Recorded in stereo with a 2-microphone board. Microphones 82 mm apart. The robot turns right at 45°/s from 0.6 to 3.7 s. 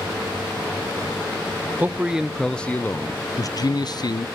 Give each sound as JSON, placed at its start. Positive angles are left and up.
{"t": 1.8, "sound": "a man speaking", "azimuth_deg": -25, "distance_m": 0.7}